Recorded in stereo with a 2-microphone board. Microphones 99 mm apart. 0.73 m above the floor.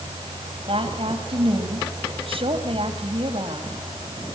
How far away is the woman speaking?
About 5 m.